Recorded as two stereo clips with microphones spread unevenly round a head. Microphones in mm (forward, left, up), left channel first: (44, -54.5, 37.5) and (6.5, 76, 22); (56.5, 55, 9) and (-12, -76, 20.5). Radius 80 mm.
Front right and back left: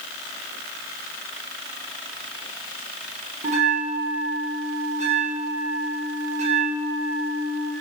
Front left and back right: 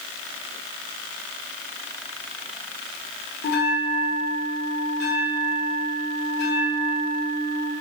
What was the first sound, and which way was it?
A bell, 70° left.